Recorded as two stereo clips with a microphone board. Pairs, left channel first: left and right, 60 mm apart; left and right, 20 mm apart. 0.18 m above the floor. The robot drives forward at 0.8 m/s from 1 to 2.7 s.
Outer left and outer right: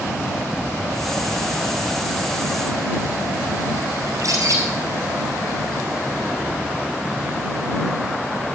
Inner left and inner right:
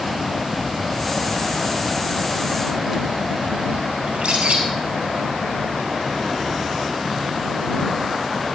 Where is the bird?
65° right (ahead or behind), 2.5 m.